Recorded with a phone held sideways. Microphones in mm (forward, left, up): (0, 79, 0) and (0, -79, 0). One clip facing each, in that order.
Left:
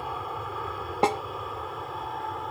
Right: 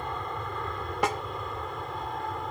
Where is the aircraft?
5° left (ahead or behind); by 2.5 s centre (ahead or behind).